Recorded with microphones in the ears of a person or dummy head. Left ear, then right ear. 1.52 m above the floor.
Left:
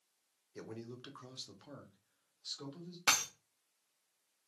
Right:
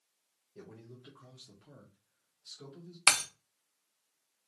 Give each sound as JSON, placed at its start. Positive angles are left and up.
{"t": 0.6, "sound": "a man speaking", "side_deg": 65, "distance_m": 1.0}
{"t": 3.1, "sound": "breaking glass", "side_deg": -30, "distance_m": 0.8}